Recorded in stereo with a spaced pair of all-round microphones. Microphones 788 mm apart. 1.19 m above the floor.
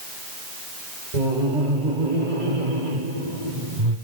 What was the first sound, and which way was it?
Laughter, 65° right (ahead or behind).